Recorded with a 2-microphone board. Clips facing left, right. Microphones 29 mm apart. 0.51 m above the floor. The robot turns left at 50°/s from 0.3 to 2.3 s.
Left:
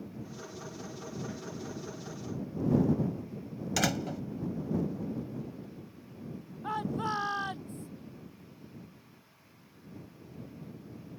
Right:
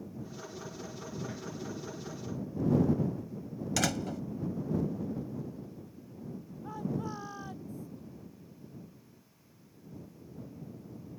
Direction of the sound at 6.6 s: 80° left.